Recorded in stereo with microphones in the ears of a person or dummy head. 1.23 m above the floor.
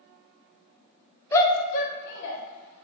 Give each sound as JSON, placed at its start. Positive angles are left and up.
{"t": 1.3, "sound": "a shout", "side_deg": 20, "distance_m": 0.6}